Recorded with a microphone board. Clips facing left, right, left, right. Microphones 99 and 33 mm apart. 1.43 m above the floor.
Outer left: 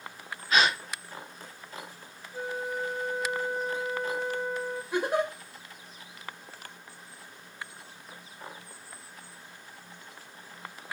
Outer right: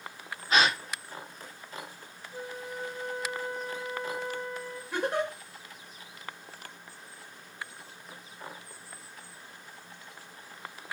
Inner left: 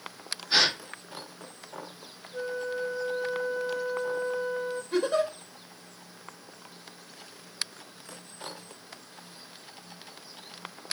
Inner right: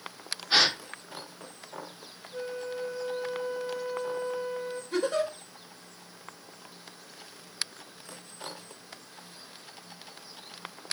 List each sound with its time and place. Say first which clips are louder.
0.5 s a gasp: even, even; 25° right (ahead or behind), 2.5 m
2.3 s a flute: outer left 6 dB, inner left 3 dB; 55° right (ahead or behind), 3 m
4.9 s a giggle: outer left 2 dB, inner left 2 dB; 10° left (ahead or behind), 1.3 m